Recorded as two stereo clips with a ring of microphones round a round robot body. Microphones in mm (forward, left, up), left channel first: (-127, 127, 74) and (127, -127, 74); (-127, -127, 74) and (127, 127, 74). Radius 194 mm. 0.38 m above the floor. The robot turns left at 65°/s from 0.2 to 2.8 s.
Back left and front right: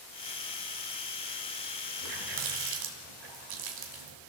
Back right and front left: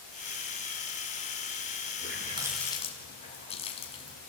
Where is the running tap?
10° right, 2.5 m; by 4.2 s 60° right, 2.5 m.